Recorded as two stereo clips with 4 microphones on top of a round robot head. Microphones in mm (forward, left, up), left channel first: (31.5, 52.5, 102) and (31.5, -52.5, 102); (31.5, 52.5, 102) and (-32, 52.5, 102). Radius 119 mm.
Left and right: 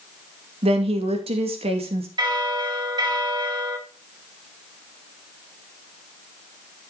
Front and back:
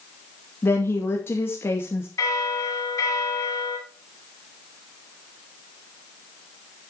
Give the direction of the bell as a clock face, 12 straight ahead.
1 o'clock.